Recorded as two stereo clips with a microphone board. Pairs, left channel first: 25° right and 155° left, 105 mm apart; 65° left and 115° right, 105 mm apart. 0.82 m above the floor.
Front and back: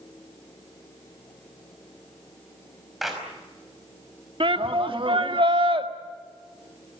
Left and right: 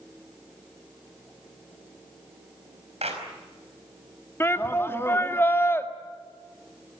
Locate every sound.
3.0 s a clap: 115° right, 5 m
4.4 s a shout: 130° left, 1.7 m